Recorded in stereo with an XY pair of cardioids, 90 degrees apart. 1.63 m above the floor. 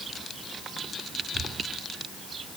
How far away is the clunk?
I don't hear a clunk.